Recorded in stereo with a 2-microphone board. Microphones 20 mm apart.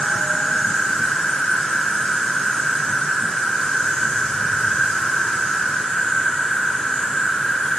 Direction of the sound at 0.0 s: 70° left (ahead or behind).